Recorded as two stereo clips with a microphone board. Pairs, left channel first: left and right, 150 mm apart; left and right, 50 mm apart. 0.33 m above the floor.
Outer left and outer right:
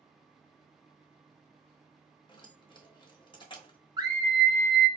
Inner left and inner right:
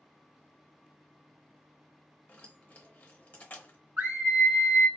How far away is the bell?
No bell in this recording.